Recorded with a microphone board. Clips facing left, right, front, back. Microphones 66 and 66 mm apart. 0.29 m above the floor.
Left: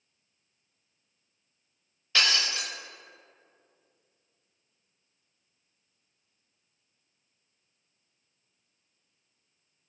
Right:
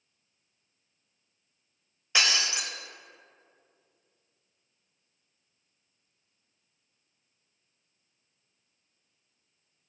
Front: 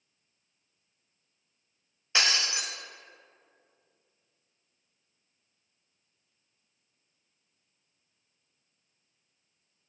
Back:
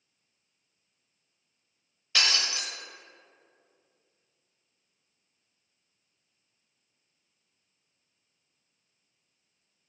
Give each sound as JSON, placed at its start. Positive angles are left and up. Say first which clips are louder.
{"t": 2.1, "sound": "breaking glass", "louder": "even, front 1 dB", "azimuth_deg": -40, "distance_m": 0.7}